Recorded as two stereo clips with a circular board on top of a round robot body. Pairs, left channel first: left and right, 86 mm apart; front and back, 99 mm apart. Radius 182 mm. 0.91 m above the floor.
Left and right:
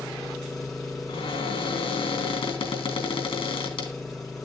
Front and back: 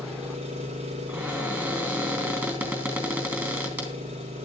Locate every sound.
0.0 s an engine running: 175° left, 0.8 m
1.1 s a cupboard door: 110° left, 3.5 m